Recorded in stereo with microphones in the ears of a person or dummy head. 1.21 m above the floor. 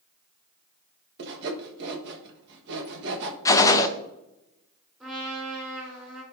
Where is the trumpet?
5° right (ahead or behind), 4 m.